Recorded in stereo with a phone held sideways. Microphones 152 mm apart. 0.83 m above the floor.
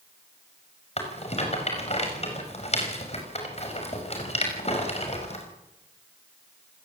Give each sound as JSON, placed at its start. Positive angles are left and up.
{"t": 1.0, "sound": "a rattle", "side_deg": 45, "distance_m": 5.5}